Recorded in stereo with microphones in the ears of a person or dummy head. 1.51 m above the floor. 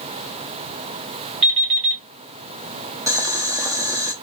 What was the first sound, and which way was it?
An alarm clock, 25° right (ahead or behind).